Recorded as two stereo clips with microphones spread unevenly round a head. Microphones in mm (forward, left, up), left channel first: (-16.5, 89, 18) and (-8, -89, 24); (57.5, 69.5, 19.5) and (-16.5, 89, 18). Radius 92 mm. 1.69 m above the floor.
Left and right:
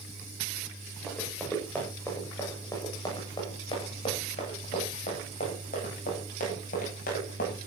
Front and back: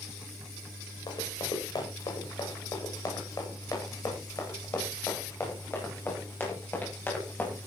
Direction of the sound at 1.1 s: 5° left.